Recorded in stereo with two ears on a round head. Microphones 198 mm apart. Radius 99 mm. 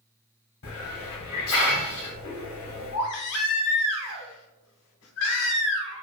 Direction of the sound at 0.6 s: 65° left (ahead or behind).